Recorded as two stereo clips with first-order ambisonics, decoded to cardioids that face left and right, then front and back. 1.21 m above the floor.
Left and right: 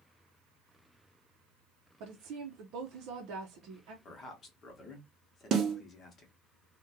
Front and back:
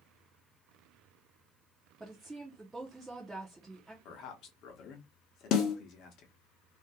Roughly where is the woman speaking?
Right.